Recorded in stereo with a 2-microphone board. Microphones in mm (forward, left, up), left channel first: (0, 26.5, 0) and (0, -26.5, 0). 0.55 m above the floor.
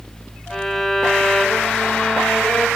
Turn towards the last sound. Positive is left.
turn(degrees=10)  # may be behind; listen again after turning